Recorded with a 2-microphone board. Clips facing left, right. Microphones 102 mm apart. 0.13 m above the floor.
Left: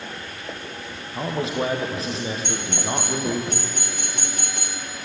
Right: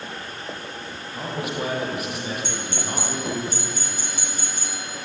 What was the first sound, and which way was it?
A man speaking, 25° left (ahead or behind).